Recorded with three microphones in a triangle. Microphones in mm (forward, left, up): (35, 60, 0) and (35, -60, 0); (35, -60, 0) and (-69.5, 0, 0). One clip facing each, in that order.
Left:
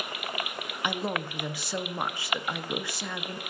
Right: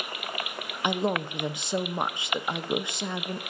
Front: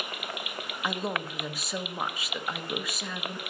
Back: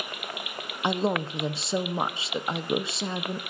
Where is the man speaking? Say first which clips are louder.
Right 4 dB, back 6 dB; 155° right, 0.6 m.